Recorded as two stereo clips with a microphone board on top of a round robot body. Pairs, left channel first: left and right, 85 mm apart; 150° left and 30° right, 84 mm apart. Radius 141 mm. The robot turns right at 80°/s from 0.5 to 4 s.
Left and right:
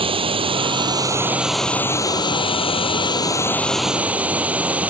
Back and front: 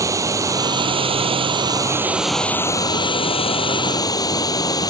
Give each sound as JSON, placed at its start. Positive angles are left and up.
{"t": 0.0, "sound": "running water", "azimuth_deg": -85}